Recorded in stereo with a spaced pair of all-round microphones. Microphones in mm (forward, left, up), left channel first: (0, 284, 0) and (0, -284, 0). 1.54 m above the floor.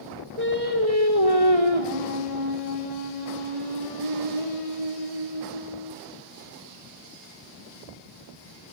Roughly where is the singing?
Right.